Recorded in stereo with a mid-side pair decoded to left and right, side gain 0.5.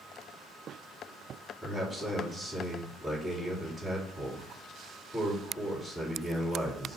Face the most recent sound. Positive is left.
turn(degrees=10)